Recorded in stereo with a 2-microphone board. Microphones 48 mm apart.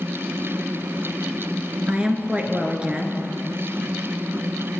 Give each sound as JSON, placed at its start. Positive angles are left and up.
{"t": 1.9, "sound": "a woman speaking", "side_deg": -20, "distance_m": 1.2}